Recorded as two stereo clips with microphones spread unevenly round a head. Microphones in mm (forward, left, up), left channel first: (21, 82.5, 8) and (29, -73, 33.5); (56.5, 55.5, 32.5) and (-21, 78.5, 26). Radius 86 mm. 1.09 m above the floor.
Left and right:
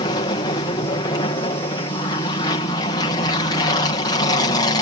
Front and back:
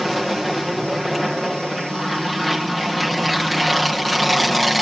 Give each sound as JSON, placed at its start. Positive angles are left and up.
{"t": 0.0, "sound": "an aircraft", "azimuth_deg": 75}